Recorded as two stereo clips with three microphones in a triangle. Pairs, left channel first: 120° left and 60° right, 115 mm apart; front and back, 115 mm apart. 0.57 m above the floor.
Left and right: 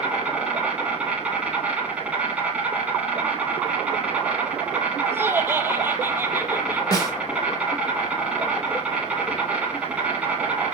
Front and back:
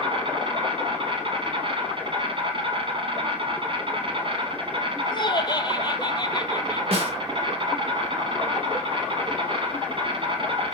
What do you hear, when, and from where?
0.0 s an insect: 140° right, 2.5 m
5.1 s laughter: straight ahead, 0.9 m
6.9 s a snare drum: 170° left, 1.7 m